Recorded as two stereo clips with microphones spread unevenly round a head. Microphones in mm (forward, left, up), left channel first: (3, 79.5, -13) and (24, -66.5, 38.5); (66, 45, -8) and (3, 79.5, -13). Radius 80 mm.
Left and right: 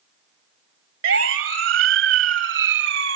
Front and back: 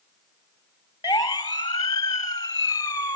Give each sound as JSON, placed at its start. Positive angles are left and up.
{"t": 1.0, "sound": "a siren", "azimuth_deg": -90}